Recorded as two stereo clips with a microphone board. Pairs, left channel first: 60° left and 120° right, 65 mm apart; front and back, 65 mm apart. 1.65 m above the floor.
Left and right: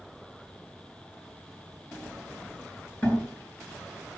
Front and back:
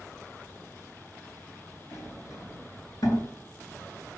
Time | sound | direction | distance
1.9 | a sliding door | 5° right | 3.5 m